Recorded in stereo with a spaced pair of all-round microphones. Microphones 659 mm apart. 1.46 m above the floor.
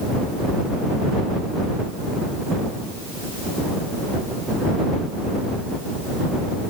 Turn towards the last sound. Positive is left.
No sound to turn to.